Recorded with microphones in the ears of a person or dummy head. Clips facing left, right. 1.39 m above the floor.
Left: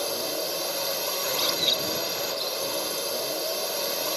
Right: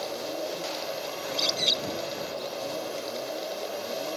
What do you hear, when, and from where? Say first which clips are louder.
0.0 s a drone: left 2 dB; 75° left (ahead or behind)
1.2 s a bird: left 2 dB; 10° left (ahead or behind)